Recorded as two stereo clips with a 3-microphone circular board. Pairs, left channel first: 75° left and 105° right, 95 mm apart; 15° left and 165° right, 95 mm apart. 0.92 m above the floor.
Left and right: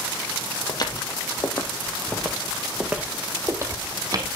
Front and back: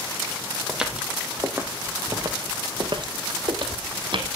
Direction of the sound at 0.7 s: 110° left.